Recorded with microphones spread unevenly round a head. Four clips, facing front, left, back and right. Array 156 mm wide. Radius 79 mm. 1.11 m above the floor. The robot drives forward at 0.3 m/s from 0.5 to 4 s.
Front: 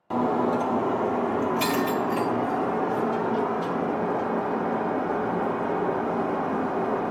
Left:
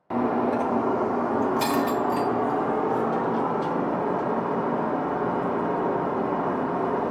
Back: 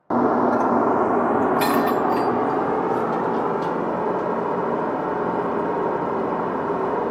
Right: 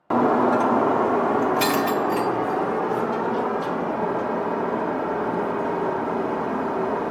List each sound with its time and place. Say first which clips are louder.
0.1 s breaking glass: right 5 dB, back 5 dB; 125° right, 0.6 m; by 7.1 s 170° right, 1.4 m